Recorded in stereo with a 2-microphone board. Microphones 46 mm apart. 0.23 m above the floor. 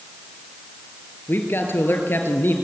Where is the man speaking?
50° left (ahead or behind), 4.5 m.